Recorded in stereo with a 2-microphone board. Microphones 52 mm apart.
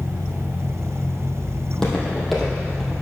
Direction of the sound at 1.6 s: 15° left (ahead or behind).